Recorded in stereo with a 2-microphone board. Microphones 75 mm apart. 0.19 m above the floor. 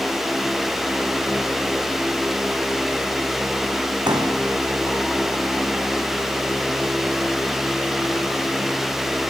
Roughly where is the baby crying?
No baby crying in this recording.